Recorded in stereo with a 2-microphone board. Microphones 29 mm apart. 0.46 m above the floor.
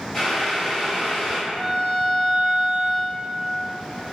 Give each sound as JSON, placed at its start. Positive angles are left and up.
{"t": 0.1, "sound": "boiling", "side_deg": 15, "distance_m": 1.3}
{"t": 1.5, "sound": "a violin", "side_deg": 45, "distance_m": 1.4}